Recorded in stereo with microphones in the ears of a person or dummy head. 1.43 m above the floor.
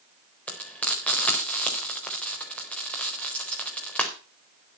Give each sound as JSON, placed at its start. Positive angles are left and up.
{"t": 0.5, "sound": "frying", "side_deg": 10, "distance_m": 4.0}